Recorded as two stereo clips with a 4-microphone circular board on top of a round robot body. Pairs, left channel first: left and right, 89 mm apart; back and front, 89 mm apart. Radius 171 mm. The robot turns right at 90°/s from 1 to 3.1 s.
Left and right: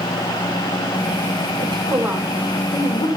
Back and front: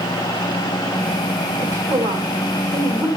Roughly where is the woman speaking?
Ahead right.